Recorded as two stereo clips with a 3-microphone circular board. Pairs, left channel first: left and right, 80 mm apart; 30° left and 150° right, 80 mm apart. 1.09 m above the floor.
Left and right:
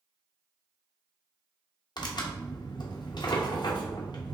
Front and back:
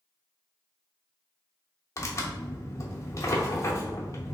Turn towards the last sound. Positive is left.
turn(degrees=75)